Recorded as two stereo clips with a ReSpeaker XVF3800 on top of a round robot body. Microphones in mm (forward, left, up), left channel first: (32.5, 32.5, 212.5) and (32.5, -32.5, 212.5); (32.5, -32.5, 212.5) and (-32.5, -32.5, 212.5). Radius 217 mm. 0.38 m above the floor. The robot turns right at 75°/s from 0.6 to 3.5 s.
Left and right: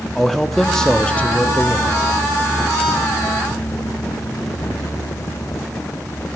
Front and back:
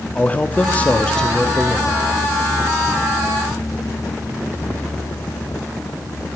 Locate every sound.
0.1 s a man speaking: 5° left, 1.2 m; by 2.0 s 115° left, 1.2 m